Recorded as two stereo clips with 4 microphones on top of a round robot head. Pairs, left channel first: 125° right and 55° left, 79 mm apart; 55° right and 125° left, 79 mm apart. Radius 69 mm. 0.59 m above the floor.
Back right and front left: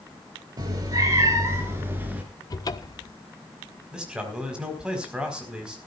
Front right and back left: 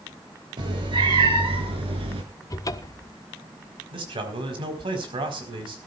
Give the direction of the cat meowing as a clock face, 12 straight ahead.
9 o'clock.